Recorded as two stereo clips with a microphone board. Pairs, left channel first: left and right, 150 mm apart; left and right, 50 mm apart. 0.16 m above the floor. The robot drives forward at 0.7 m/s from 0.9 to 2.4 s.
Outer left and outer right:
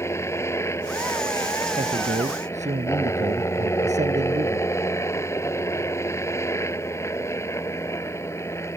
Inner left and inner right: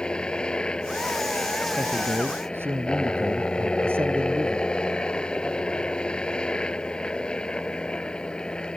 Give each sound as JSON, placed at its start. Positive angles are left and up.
{"t": 0.0, "sound": "a helicopter", "side_deg": 20}
{"t": 1.8, "sound": "a man speaking", "side_deg": -50}